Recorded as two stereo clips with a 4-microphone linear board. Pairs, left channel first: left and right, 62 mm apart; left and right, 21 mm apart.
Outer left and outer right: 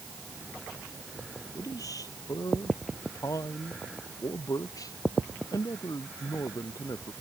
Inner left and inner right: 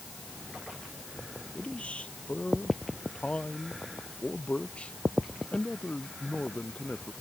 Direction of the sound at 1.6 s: 85° left.